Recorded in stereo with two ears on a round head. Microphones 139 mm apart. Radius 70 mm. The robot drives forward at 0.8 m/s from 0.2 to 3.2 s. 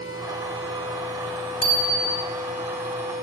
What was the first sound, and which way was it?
A bicycle bell, 35° left (ahead or behind).